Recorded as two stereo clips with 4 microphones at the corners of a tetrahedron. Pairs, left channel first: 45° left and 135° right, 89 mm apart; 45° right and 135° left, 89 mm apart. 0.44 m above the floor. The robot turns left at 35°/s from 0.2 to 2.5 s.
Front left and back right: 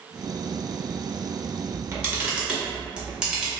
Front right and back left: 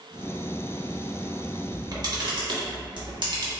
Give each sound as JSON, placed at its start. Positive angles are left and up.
{"t": 1.7, "sound": "a camera shutter", "azimuth_deg": 175, "distance_m": 0.6}